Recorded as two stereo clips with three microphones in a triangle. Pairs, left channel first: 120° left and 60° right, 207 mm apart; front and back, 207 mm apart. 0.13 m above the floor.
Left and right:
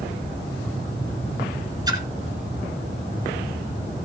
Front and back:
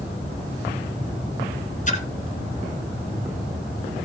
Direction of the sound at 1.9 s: 5° right.